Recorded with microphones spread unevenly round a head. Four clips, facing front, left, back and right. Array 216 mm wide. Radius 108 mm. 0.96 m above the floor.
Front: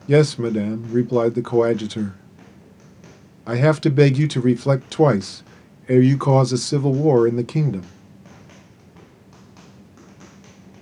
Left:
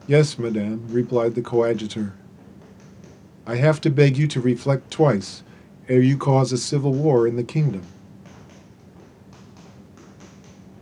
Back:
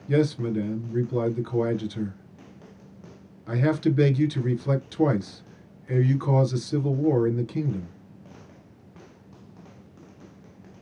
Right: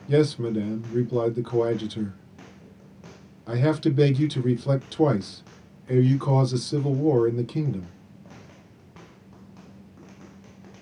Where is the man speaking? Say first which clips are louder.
Left 3 dB, front 7 dB; 30° left, 0.5 m.